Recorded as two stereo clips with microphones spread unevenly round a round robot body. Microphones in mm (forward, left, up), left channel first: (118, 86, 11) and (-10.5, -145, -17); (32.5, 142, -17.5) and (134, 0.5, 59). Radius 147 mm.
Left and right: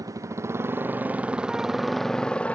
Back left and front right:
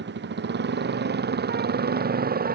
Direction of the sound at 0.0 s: 40° right.